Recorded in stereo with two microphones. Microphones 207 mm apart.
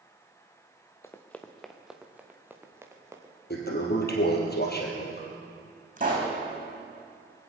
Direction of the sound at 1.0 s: 15° left (ahead or behind).